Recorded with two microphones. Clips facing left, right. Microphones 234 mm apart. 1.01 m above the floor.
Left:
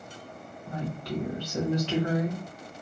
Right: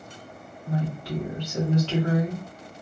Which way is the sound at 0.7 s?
15° right (ahead or behind).